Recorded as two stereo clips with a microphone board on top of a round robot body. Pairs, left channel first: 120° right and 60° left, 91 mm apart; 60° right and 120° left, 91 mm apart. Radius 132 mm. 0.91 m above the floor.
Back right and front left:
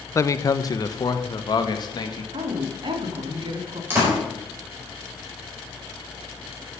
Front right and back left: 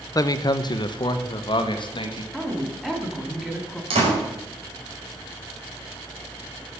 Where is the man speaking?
80° right, 0.8 m.